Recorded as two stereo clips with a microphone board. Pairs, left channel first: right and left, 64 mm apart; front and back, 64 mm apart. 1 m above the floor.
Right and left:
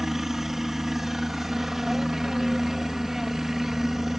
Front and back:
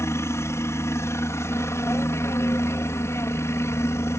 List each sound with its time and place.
0.0 s a helicopter: 5° left